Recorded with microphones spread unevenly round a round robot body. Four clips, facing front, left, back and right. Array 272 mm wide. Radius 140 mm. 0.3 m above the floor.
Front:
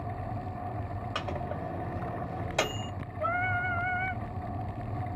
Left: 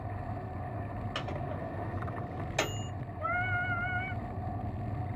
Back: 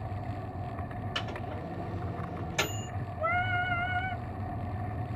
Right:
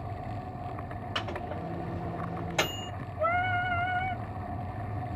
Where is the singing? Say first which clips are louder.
Right 5 dB, even; 100° right, 1.2 m.